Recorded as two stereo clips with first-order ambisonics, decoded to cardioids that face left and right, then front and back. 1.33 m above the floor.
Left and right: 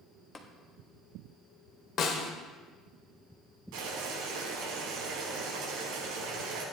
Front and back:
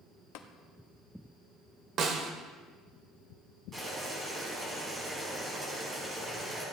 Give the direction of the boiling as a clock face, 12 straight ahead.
4 o'clock.